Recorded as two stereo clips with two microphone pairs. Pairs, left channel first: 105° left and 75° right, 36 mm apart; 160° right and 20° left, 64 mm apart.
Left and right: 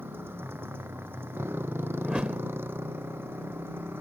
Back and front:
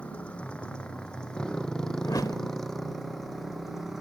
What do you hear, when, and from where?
0.0 s a motorcycle: 85° right; by 4.0 s 65° right
2.0 s a whoosh: 140° right